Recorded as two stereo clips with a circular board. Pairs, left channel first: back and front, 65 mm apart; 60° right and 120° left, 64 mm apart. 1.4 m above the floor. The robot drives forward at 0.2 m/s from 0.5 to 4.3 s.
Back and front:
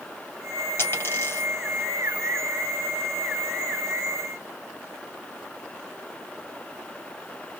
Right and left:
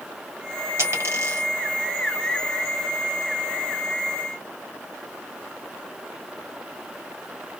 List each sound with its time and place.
0.8 s a dropped coin: 145° left, 1.7 m; by 1.5 s 150° left, 1.8 m